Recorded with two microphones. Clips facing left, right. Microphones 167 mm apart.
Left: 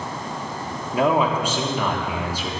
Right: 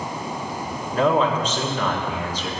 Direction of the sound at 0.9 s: 10° left (ahead or behind).